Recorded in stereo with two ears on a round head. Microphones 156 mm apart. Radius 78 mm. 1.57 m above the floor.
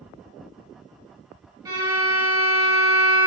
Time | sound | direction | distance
1.6 | a violin | 20° right (ahead or behind) | 3.5 m